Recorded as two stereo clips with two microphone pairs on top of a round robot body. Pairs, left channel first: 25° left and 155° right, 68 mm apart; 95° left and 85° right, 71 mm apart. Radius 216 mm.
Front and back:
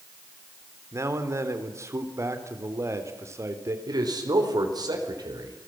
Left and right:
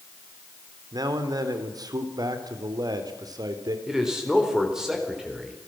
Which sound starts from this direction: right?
A man speaking, at 0.9 s.